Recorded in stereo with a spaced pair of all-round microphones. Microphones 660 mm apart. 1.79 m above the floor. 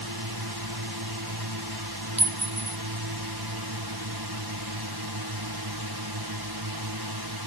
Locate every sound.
0.0 s a drone: 35° right (ahead or behind)
2.2 s a clink: 10° right (ahead or behind)